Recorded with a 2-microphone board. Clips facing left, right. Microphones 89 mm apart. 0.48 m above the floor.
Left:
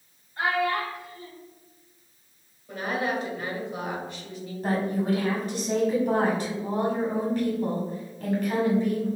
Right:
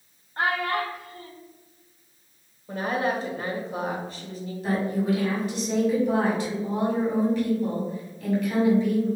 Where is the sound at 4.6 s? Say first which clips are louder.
Right 1 dB; 40° left (ahead or behind), 1.7 m.